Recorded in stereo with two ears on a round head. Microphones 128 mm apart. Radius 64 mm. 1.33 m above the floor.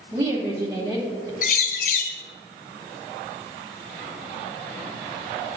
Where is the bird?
65° left (ahead or behind), 0.7 m.